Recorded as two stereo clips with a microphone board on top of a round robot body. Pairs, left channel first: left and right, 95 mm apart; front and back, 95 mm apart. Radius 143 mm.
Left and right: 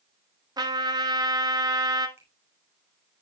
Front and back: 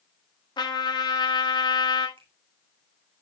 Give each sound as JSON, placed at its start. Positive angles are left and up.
{"t": 0.6, "sound": "a trumpet", "azimuth_deg": -45, "distance_m": 1.8}
{"t": 2.2, "sound": "a finger snap", "azimuth_deg": -155, "distance_m": 3.0}